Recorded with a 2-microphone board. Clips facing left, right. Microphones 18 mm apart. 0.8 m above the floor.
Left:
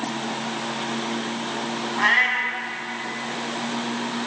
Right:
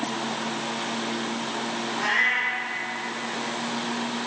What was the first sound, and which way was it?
A cat meowing, 40° left (ahead or behind).